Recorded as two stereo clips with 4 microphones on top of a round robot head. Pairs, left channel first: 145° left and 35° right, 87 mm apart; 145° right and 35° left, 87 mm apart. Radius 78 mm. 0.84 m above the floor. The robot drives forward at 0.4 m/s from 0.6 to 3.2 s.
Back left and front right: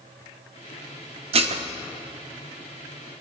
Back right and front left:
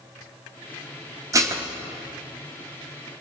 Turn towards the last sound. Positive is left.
turn(degrees=-60)